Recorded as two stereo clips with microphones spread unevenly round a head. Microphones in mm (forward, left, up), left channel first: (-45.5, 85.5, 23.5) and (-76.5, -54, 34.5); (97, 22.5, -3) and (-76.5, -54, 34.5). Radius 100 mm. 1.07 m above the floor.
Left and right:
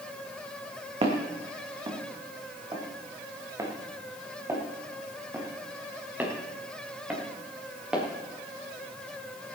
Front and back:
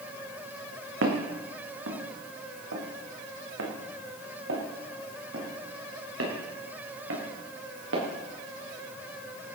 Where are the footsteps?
145° right, 3 m; by 8.1 s 175° left, 5.5 m.